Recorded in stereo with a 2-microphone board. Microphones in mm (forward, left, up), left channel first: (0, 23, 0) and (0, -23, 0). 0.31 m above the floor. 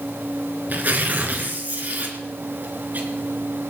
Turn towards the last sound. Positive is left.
turn(degrees=-40)  # may be behind; listen again after turning